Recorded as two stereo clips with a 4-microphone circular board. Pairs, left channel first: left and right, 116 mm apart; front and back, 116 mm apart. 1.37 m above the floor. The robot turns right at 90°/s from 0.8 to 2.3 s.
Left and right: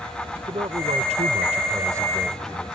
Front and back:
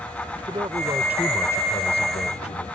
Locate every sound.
0.3 s a man speaking: 130° right; by 2.7 s 5° left